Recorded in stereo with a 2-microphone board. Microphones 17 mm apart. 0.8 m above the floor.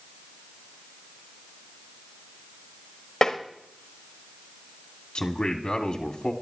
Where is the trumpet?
No trumpet in this recording.